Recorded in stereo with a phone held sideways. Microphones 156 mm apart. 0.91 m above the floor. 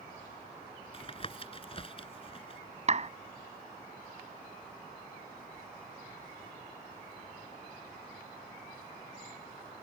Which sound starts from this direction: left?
Tapping, at 0.9 s.